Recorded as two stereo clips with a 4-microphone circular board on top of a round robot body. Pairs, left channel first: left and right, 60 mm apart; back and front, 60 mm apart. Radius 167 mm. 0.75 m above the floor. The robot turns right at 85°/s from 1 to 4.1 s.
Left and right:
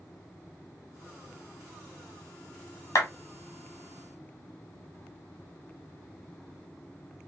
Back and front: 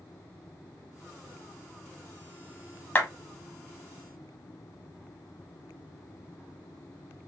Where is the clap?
120° left, 1.5 m; by 3.1 s 130° left, 1.5 m.